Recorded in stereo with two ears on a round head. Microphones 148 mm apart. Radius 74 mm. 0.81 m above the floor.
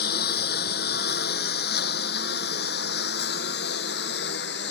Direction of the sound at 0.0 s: 60° left (ahead or behind).